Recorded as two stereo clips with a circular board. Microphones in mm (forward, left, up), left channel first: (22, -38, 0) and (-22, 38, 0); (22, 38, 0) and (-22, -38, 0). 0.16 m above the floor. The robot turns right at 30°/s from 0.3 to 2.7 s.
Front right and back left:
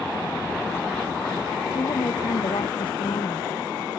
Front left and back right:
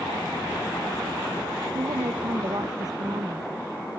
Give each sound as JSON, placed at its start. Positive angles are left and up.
{"t": 1.8, "sound": "a woman speaking", "azimuth_deg": -105}